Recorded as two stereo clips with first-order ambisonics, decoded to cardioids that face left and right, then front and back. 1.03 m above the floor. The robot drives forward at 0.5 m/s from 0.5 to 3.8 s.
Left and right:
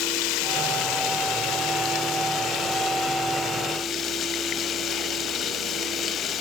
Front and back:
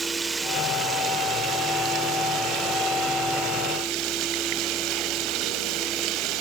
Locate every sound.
0.0 s running water: 105° left, 1.4 m; by 6.4 s 145° left, 2.5 m